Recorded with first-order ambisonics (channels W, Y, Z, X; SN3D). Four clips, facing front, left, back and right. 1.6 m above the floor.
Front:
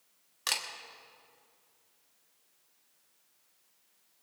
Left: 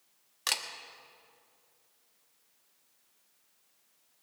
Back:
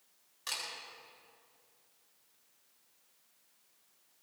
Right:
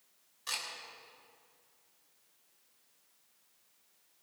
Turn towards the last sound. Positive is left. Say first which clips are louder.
# left 6 dB, front 6 dB
turn(degrees=55)